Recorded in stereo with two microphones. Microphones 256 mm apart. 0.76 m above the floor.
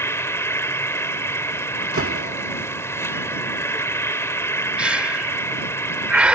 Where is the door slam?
60° right (ahead or behind).